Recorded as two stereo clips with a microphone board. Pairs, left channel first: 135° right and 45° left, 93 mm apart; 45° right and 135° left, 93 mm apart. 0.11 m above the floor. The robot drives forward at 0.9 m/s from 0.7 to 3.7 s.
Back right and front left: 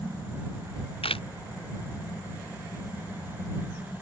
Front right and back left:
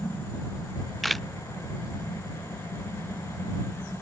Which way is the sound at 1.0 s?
135° right.